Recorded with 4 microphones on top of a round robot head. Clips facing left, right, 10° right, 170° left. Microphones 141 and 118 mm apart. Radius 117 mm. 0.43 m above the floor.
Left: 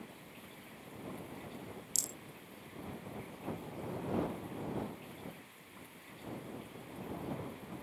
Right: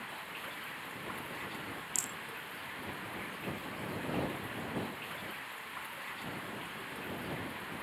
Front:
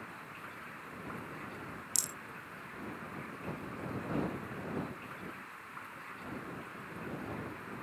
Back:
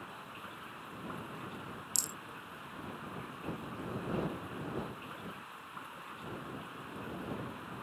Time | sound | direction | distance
0.0 | running water | 105° right | ?
1.9 | a rattle | 70° left | ?